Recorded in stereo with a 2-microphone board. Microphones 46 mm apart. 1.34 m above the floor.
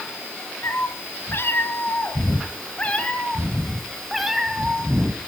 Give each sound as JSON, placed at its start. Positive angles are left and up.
{"t": 0.6, "sound": "a cat meowing", "side_deg": 65, "distance_m": 2.5}